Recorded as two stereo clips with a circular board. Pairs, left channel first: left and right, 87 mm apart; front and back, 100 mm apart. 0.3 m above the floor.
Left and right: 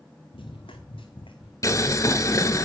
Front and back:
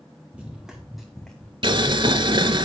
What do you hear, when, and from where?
0.3 s running footsteps: 100° left, 2.5 m; by 1.5 s 80° left, 2.5 m
1.6 s boiling: 140° left, 0.9 m